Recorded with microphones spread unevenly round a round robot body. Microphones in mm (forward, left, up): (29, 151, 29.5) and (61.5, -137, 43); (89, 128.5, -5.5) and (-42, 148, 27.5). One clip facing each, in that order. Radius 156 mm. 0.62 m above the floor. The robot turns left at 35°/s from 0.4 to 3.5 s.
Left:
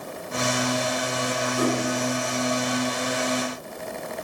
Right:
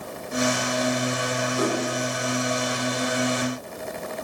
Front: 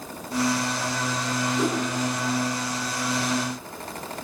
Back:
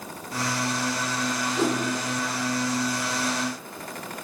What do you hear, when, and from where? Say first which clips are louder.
1.6 s a whoosh: left 1 dB, back 1 dB; 165° left, 3.5 m; by 1.8 s 160° left, 3.5 m